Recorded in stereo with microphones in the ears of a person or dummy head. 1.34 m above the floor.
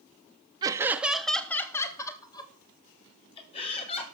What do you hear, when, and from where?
0.6 s laughter: 20° right (ahead or behind), 1.0 m; by 4.0 s 35° left (ahead or behind), 3 m